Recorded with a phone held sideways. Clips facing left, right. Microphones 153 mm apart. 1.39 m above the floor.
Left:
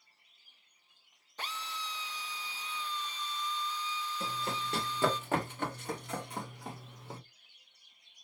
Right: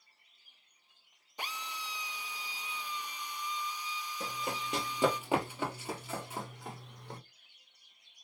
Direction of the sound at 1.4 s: 15° right (ahead or behind).